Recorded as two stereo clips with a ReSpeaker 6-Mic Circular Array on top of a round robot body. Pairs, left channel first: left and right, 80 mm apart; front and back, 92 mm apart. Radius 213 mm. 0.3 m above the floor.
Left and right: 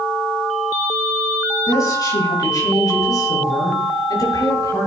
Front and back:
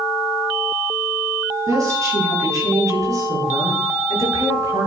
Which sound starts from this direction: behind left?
A woman speaking, at 1.7 s.